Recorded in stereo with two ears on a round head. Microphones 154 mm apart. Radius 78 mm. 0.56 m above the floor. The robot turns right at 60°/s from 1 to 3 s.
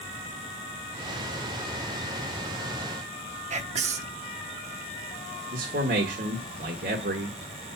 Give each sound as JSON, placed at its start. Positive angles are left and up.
{"t": 3.5, "sound": "whispering", "side_deg": -40, "distance_m": 0.9}
{"t": 5.5, "sound": "a man speaking", "side_deg": -60, "distance_m": 1.4}